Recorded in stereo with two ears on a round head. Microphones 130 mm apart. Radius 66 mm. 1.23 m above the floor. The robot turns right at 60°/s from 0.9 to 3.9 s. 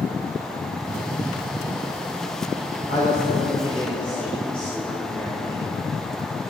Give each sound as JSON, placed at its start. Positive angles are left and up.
{"t": 2.9, "sound": "a man speaking", "azimuth_deg": 110, "distance_m": 4.0}